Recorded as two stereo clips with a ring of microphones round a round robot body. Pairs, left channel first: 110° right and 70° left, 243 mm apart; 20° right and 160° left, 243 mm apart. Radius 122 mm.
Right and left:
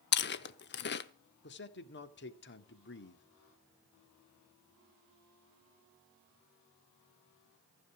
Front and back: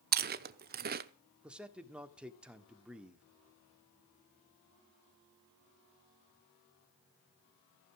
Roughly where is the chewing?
Behind right.